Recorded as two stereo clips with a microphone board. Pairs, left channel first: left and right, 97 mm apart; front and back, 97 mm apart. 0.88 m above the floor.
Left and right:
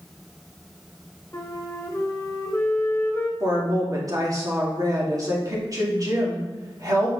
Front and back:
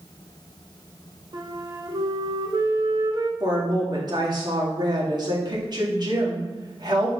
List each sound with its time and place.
1.3 s a flute: 150° left, 1.0 m
3.4 s a woman speaking: 140° right, 2 m